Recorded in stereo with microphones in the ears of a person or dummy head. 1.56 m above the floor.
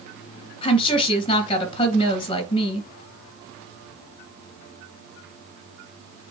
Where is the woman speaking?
30° left (ahead or behind), 2 m.